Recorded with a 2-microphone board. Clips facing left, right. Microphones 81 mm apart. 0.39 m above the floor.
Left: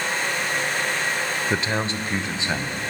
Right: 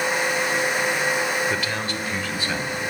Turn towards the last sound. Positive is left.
turn(degrees=20)  # may be behind; listen again after turning